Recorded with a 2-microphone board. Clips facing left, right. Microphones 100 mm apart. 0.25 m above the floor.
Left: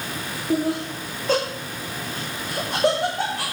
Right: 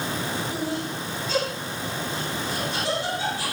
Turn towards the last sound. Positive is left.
turn(degrees=85)